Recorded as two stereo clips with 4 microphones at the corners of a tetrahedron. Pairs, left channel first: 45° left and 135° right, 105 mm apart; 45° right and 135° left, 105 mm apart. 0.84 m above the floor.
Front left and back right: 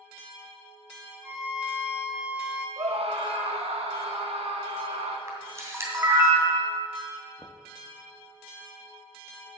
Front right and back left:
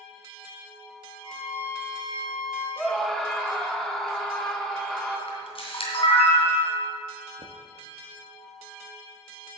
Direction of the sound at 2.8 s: 130° right.